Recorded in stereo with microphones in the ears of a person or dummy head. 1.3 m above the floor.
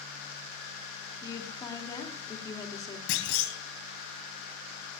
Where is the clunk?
65° left (ahead or behind), 3 m.